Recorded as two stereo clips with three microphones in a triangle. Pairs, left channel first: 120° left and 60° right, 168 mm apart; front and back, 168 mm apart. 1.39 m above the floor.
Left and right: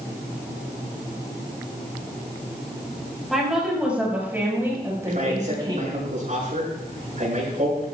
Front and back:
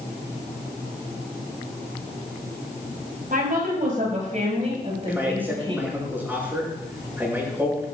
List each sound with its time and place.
3.3 s a woman speaking: 150° right, 5.5 m; by 5.9 s 120° right, 5.5 m
5.1 s a man speaking: 100° right, 6.5 m